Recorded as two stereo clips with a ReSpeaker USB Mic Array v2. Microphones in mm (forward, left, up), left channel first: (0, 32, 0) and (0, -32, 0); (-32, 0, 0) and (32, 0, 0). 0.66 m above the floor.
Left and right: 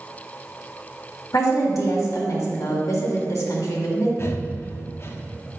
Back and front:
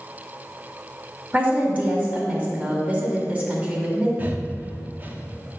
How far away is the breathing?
About 0.7 m.